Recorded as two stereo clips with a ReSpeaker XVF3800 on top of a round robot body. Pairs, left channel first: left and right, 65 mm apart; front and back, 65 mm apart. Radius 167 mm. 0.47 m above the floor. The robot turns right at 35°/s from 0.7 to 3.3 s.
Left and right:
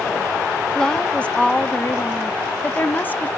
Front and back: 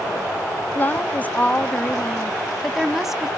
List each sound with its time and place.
0.8 s a woman speaking: 20° left, 1.3 m; by 3.3 s 110° left, 1.3 m